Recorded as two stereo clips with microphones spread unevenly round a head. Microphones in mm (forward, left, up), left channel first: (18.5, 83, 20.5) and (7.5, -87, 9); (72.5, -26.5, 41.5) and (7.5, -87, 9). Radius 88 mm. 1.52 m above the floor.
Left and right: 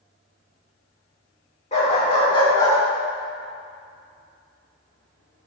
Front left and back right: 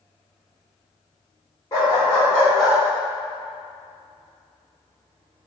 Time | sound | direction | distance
1.7 | a dog barking | 50° left | 1.6 m